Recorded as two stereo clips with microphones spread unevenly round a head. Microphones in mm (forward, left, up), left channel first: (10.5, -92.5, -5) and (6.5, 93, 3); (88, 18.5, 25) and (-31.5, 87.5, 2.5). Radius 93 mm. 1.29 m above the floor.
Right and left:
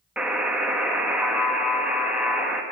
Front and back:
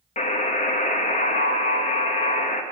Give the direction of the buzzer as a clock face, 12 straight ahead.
12 o'clock.